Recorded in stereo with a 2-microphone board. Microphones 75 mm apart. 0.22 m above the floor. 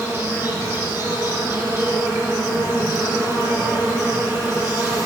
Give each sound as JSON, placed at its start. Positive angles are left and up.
{"t": 0.0, "sound": "an insect", "side_deg": -30, "distance_m": 2.5}